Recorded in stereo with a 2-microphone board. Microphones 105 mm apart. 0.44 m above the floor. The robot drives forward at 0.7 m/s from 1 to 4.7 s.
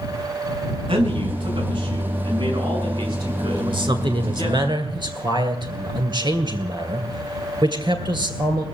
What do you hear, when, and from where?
0.9 s a man speaking: 50° right (ahead or behind), 4.5 m; by 4.6 s 35° right (ahead or behind), 6 m
3.6 s a man speaking: 50° right (ahead or behind), 2 m; by 8.6 s 40° right (ahead or behind), 2.5 m